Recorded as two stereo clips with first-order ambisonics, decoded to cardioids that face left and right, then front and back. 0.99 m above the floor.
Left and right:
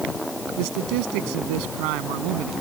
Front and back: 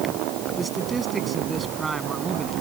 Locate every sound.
0.6 s a man speaking: 105° right